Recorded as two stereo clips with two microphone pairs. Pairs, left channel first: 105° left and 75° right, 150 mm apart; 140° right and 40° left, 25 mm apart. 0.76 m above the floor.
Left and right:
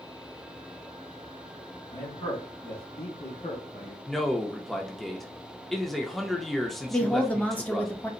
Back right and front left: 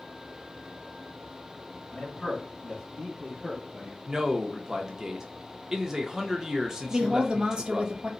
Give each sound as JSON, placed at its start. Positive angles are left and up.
{"t": 1.9, "sound": "a man speaking", "azimuth_deg": 155, "distance_m": 1.9}
{"t": 4.1, "sound": "a man speaking", "azimuth_deg": 25, "distance_m": 0.6}
{"t": 6.9, "sound": "a woman speaking", "azimuth_deg": 30, "distance_m": 0.8}